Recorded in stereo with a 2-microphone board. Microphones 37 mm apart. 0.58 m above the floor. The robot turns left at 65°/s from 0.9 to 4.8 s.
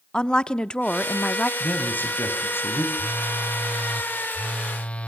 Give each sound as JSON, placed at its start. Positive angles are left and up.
{"t": 0.1, "sound": "a woman speaking", "azimuth_deg": 140, "distance_m": 0.7}
{"t": 1.6, "sound": "a man speaking", "azimuth_deg": 145, "distance_m": 3.5}
{"t": 3.0, "sound": "a phone buzzing", "azimuth_deg": -95, "distance_m": 0.9}